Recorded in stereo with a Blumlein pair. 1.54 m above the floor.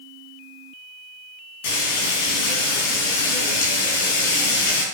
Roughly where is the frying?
Ahead left.